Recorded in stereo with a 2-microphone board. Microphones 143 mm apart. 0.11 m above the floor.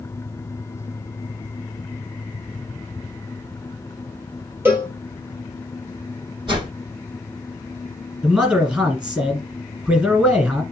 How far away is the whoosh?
About 3 m.